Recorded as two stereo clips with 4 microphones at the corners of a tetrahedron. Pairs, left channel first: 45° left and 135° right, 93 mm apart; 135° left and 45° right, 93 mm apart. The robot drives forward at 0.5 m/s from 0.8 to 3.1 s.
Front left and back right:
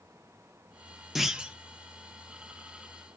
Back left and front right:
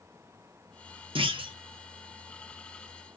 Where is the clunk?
50° right, 0.8 m; by 1.5 s 60° right, 0.7 m.